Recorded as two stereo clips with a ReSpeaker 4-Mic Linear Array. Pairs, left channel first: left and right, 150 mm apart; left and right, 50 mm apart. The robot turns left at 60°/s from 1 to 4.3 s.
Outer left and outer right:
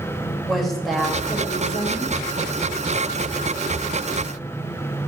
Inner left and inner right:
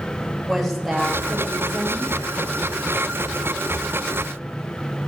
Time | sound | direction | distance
0.5 | a woman speaking | straight behind | 2 m